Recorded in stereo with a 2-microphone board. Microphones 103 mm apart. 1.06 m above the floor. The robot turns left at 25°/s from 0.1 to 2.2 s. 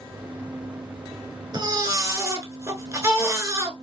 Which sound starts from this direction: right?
A baby crying, at 1.5 s.